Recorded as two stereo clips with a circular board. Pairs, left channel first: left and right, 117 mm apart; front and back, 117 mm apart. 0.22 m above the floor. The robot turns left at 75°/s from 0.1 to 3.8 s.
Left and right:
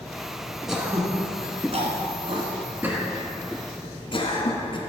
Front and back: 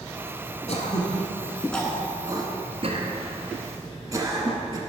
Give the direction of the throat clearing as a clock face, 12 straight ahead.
12 o'clock.